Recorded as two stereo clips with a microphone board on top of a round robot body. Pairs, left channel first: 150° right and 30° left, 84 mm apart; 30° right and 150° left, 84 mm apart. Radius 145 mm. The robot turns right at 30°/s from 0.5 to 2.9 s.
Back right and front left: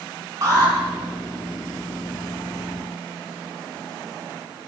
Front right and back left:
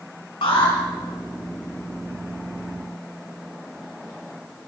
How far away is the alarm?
About 4.5 m.